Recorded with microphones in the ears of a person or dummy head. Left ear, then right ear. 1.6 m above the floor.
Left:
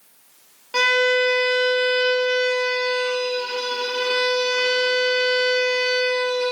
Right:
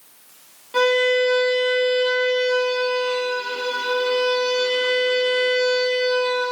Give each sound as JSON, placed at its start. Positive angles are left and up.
{"t": 0.7, "sound": "a violin", "side_deg": 55, "distance_m": 1.8}